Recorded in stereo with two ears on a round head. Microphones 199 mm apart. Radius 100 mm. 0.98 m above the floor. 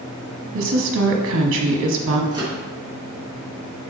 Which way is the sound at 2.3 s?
20° right (ahead or behind).